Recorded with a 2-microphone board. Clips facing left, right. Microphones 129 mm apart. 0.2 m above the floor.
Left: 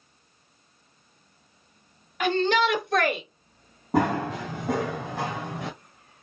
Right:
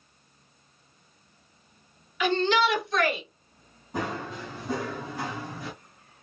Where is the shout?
50° left (ahead or behind), 3 m; by 3.2 s 55° left (ahead or behind), 2.5 m.